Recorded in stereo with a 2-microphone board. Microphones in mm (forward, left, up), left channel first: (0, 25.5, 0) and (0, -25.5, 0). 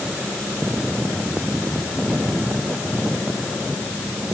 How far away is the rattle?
I don't hear a rattle.